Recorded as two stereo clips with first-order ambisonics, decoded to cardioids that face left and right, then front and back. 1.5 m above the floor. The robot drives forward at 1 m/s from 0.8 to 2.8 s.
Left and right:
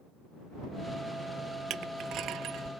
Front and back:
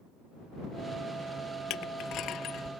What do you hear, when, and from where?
1.7 s crushing: 40° right; by 2.7 s 50° right